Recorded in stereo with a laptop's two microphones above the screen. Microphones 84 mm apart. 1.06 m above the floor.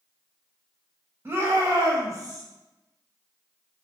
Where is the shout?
25° right (ahead or behind), 1.5 m; by 2.5 s 45° right (ahead or behind), 1.2 m.